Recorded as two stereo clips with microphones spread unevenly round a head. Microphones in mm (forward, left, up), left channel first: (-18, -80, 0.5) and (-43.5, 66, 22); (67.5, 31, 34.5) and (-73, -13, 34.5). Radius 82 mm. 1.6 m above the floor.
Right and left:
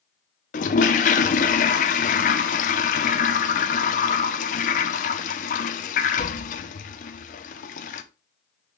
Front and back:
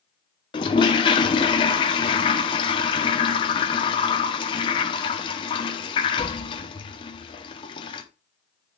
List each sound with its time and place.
0.5 s a toilet flushing: 40° right, 0.7 m